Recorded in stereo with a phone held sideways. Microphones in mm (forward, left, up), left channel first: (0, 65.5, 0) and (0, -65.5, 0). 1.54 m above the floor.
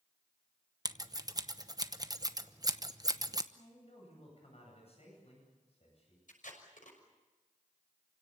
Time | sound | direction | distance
0.8 | scissors | 30° right (ahead or behind) | 0.9 m
3.5 | a man speaking | 50° left (ahead or behind) | 9 m
6.3 | tape being pulled | 80° left | 6 m